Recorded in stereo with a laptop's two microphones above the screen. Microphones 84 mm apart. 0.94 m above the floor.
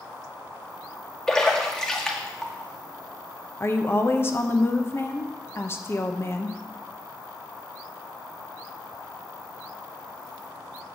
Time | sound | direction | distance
1.3 | a splash | 10° left (ahead or behind) | 1.8 m
3.6 | a woman speaking | 30° left (ahead or behind) | 0.8 m